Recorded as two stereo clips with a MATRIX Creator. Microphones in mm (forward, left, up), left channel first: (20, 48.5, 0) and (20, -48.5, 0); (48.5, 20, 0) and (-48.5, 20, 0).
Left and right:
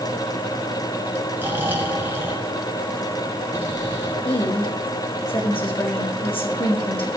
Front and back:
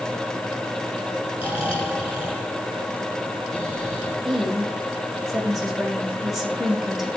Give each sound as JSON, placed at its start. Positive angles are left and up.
{"t": 1.4, "sound": "snoring", "azimuth_deg": -20, "distance_m": 2.5}
{"t": 4.2, "sound": "a woman speaking", "azimuth_deg": 90, "distance_m": 3.0}